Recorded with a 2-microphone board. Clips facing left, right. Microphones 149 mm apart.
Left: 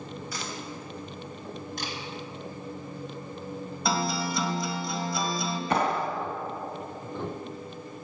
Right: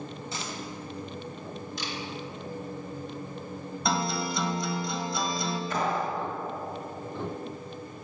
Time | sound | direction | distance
0.3 | a dropped coin | 25° right (ahead or behind) | 3.5 m
1.8 | a camera shutter | 55° left (ahead or behind) | 3 m
3.9 | a guitar | centre (ahead or behind) | 1.7 m
5.7 | a clap | 75° left (ahead or behind) | 1.8 m